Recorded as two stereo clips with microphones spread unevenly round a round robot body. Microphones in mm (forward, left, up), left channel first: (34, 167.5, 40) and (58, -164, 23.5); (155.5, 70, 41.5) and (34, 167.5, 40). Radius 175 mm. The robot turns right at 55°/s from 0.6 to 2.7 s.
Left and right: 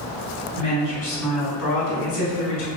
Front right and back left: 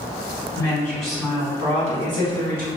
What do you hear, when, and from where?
0.6 s a woman speaking: 35° left, 1.4 m; by 2.7 s 150° left, 1.4 m